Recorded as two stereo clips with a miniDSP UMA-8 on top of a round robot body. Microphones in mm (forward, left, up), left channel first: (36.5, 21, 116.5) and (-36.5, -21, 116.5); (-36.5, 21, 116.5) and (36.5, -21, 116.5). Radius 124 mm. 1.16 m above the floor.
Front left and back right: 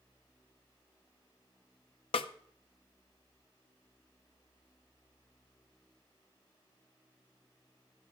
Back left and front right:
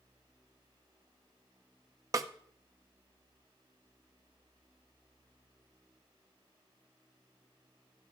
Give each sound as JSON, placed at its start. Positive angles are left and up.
{"t": 2.1, "sound": "a snare drum", "azimuth_deg": 20, "distance_m": 0.5}